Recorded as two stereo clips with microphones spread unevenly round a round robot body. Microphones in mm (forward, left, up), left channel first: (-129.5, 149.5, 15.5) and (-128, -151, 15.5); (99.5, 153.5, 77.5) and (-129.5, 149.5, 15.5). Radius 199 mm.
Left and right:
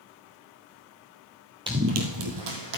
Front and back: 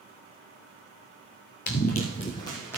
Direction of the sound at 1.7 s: 15° right.